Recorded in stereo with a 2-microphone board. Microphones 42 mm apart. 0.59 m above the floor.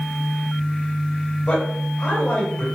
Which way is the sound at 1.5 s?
30° left (ahead or behind).